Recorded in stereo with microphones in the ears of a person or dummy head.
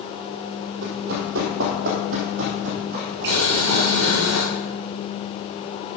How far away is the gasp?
No gasp in this recording.